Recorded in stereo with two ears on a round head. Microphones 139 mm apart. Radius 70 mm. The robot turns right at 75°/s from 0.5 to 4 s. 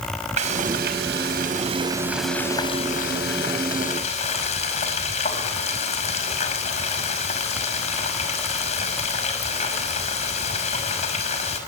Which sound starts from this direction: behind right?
Frying, at 0.4 s.